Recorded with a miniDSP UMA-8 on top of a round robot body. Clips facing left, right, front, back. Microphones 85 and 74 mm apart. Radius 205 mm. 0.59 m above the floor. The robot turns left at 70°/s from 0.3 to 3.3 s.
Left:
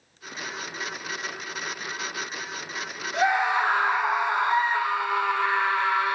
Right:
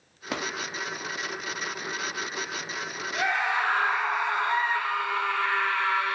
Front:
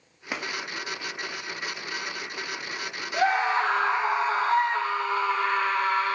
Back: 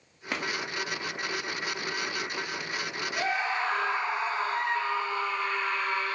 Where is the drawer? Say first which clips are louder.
Right 5 dB, back 1 dB; 80° right, 0.9 m; by 0.5 s 95° right, 0.9 m.